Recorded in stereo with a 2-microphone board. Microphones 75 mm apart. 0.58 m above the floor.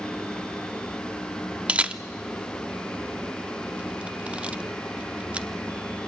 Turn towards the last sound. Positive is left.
turn(degrees=-15)  # may be behind; listen again after turning